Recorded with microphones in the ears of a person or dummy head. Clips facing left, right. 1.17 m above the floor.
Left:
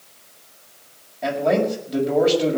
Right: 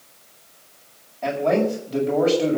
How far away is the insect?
I don't hear an insect.